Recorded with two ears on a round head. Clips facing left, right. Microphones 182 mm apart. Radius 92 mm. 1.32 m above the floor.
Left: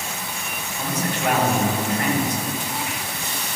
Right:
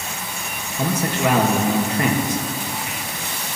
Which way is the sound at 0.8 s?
55° right (ahead or behind).